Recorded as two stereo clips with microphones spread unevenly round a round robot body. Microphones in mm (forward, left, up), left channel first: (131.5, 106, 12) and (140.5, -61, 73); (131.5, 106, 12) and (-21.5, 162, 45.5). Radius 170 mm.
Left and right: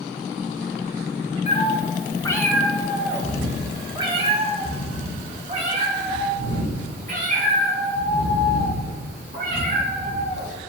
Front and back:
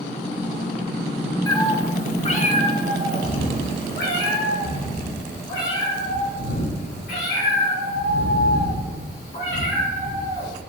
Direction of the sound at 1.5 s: 50° left.